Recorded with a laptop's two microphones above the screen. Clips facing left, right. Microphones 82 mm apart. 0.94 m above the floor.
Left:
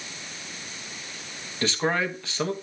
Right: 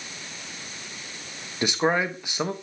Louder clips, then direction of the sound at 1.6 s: Right 2 dB; 15° right (ahead or behind).